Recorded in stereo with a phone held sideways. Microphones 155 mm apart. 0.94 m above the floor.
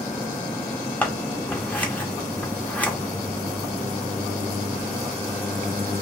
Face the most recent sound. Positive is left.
turn(degrees=10)  # may be behind; listen again after turning